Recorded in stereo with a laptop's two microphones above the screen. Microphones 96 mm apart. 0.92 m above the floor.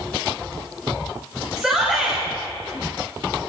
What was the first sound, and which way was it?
A shout, 5° right (ahead or behind).